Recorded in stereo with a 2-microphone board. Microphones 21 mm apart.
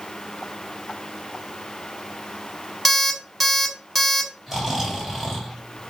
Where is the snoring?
10° right (ahead or behind), 1.4 m.